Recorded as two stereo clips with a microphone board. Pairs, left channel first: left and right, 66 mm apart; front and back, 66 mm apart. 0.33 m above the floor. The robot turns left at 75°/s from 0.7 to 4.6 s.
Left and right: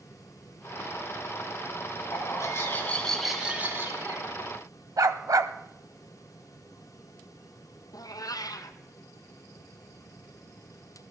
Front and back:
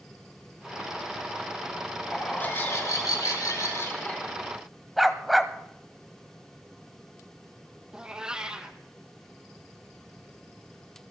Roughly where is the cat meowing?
Left.